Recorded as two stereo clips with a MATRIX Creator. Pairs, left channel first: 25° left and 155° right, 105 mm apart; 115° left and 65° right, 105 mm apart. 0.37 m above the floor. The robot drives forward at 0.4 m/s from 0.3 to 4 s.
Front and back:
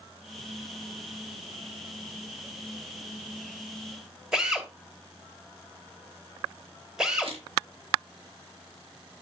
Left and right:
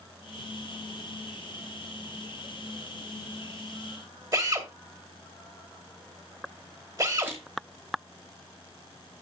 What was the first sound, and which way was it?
A drill, 80° right.